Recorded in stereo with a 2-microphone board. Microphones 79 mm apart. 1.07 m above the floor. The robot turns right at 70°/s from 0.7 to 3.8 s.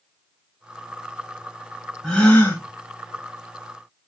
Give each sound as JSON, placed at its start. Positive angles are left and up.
{"t": 2.0, "sound": "a gasp", "azimuth_deg": 10, "distance_m": 1.2}